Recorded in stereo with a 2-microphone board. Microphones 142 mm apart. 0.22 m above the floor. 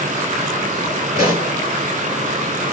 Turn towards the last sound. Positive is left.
turn(degrees=-25)  # may be behind; listen again after turning